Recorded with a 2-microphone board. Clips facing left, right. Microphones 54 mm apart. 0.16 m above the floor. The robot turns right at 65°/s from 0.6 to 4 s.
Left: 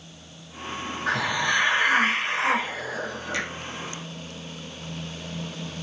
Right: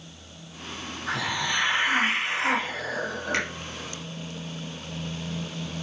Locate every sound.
1.1 s a hiss: 60° left, 6 m; by 3.5 s 145° right, 6 m
3.3 s a finger snap: 50° right (ahead or behind), 4.5 m; by 3.5 s 55° right (ahead or behind), 4.5 m